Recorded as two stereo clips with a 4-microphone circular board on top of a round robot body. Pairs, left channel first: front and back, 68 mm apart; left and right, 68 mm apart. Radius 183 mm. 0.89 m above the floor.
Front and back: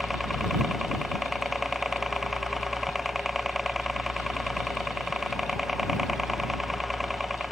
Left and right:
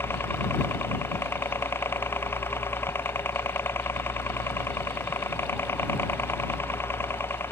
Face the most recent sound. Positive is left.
turn(degrees=95)